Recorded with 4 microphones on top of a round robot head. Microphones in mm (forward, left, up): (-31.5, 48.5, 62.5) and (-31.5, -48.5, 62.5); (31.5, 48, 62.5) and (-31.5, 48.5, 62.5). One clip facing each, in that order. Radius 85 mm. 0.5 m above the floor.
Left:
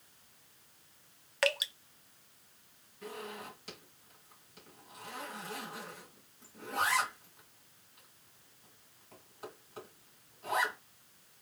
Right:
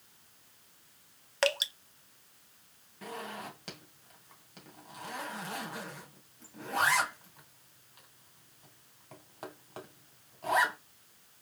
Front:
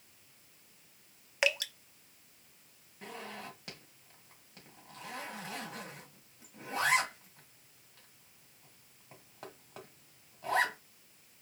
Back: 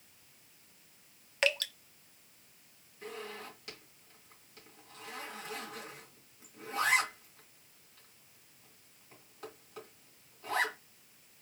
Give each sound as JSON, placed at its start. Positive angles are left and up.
{"t": 1.4, "sound": "dripping", "azimuth_deg": -65, "distance_m": 0.8}
{"t": 3.0, "sound": "a zipper", "azimuth_deg": -60, "distance_m": 2.0}